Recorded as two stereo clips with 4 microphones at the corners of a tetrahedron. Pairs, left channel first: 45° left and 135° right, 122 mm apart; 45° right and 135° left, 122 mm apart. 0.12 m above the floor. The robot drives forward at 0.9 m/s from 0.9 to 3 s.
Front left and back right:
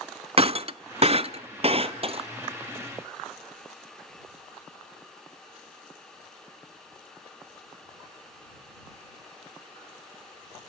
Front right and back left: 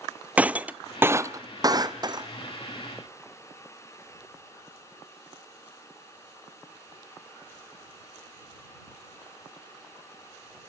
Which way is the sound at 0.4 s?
150° right.